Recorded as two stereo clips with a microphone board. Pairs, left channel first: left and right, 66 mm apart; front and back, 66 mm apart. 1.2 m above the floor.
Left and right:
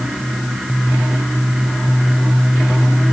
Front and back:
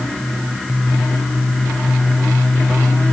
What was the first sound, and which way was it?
Only background noise.